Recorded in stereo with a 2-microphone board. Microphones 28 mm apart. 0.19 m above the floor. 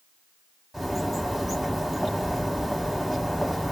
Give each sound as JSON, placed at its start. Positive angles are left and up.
{"t": 0.7, "sound": "a bird", "side_deg": 0, "distance_m": 0.9}